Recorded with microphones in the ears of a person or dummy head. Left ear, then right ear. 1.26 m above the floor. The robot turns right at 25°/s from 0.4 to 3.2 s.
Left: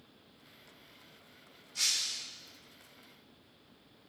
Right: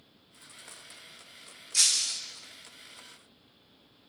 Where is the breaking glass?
55° right (ahead or behind), 0.8 m; by 2.2 s 60° right (ahead or behind), 0.8 m.